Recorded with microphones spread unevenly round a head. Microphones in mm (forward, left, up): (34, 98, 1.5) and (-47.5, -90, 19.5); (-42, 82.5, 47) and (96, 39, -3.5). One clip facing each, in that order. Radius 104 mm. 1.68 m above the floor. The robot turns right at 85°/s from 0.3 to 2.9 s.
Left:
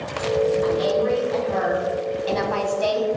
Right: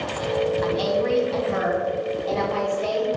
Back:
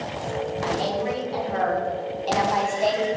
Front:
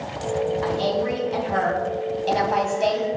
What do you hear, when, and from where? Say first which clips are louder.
0.6 s a woman speaking: left 2 dB, front 3 dB; 125° right, 2.5 m; by 3.1 s 70° left, 2.5 m